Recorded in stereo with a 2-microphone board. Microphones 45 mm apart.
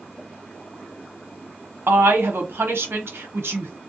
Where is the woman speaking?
65° right (ahead or behind), 0.9 m.